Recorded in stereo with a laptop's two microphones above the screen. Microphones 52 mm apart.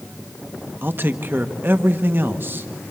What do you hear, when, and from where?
0.8 s a man speaking: 40° right (ahead or behind), 1.0 m